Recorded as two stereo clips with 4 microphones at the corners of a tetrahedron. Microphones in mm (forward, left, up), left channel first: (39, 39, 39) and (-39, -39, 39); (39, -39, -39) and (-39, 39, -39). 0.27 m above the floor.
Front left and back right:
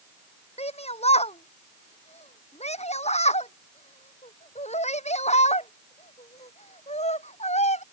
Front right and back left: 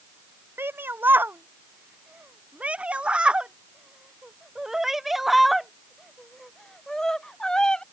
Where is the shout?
65° left; by 7.8 s 40° left.